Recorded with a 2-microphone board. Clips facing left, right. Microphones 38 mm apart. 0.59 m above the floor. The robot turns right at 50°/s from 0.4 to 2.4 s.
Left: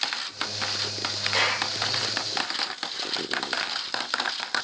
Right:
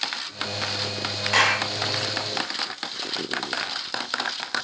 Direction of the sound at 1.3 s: 80° right.